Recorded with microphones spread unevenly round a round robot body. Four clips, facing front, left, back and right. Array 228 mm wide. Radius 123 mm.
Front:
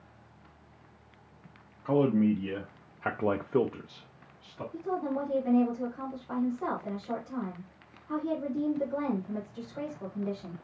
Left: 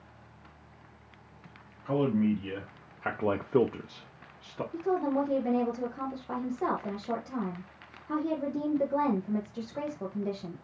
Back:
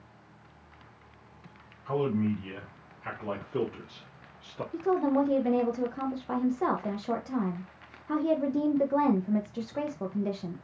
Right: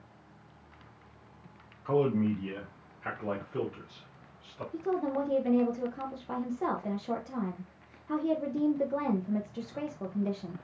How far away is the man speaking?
About 1.3 m.